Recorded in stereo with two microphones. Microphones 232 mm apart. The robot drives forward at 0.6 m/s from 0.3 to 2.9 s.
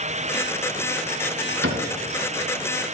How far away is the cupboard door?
About 2 m.